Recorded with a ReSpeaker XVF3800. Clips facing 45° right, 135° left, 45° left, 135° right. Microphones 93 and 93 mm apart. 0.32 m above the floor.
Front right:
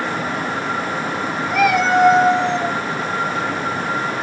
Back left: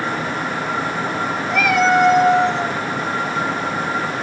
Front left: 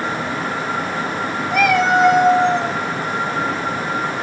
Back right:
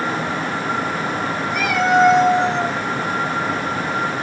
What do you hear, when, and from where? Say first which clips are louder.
1.5 s a cat meowing: even, front left 2 dB; 40° left, 1.4 m; by 2.8 s 5° left, 1.2 m